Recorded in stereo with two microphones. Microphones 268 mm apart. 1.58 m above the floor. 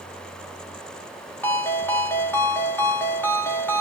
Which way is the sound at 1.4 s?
10° left (ahead or behind).